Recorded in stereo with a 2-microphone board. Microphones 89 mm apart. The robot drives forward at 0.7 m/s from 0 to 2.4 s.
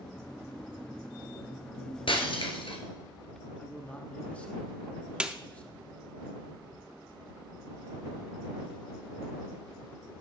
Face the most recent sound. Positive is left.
turn(degrees=-10)  # may be behind; listen again after turning